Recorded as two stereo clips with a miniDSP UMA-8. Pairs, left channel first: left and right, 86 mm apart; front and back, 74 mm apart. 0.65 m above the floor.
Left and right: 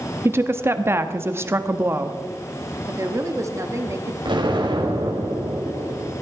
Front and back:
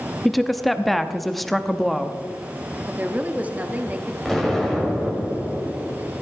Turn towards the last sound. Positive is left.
turn(degrees=-90)